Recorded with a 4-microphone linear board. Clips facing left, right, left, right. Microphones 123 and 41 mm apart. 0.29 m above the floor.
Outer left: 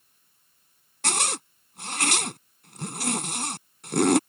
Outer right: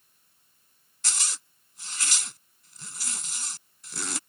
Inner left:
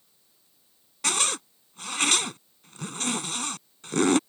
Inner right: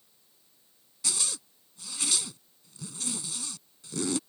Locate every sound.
1.0 s a zipper: 65° left (ahead or behind)